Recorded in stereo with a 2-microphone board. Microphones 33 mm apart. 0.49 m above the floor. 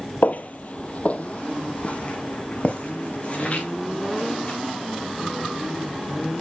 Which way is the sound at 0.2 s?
55° left (ahead or behind).